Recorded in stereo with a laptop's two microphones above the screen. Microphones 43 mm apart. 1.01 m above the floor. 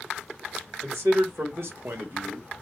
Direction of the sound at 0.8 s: 80° right.